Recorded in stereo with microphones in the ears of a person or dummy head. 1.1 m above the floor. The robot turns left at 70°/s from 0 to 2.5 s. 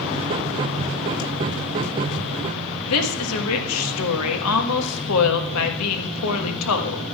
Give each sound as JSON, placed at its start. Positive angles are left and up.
{"t": 2.9, "sound": "a woman speaking", "side_deg": 75, "distance_m": 1.4}